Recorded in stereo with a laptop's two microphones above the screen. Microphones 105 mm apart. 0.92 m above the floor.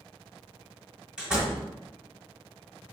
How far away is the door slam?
About 1.5 m.